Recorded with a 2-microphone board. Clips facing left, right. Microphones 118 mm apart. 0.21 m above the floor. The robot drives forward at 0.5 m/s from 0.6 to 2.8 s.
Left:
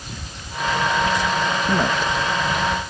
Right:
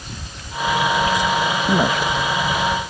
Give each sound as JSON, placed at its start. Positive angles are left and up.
{"t": 1.7, "sound": "a woman speaking", "side_deg": -15}